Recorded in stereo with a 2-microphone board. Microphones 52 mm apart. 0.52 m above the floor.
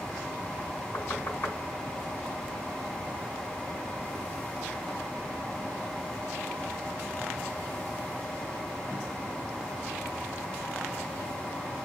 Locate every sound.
0.9 s knocking: 50° left (ahead or behind), 2.5 m